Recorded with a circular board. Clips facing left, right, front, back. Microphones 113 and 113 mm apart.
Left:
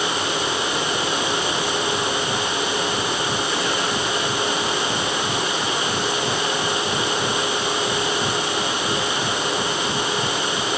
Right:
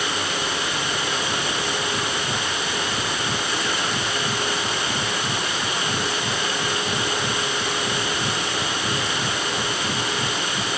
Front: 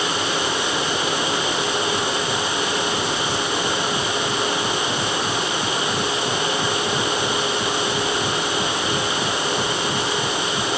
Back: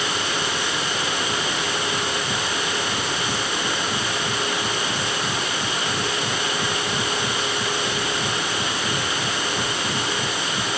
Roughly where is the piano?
I don't hear a piano.